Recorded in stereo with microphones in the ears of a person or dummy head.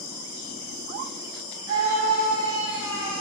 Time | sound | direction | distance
1.7 | a scream | 85° right | 2.5 m